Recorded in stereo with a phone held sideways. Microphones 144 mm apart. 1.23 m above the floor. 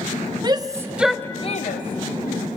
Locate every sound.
0.4 s a shout: 30° right (ahead or behind), 1.1 m; by 2.4 s 75° left (ahead or behind), 1.2 m